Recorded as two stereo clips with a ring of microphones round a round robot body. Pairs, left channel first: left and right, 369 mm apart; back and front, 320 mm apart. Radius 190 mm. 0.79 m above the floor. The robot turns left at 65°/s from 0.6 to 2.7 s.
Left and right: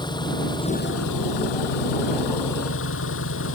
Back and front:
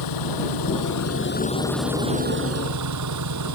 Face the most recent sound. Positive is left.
turn(degrees=30)